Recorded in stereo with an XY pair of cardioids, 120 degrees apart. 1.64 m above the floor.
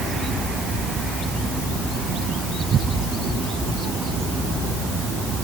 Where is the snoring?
No snoring in this recording.